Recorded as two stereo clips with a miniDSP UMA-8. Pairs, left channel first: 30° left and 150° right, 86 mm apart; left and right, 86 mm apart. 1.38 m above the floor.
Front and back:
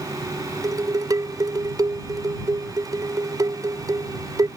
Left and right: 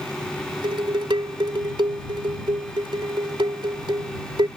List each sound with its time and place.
0.6 s dishes clattering: 105° right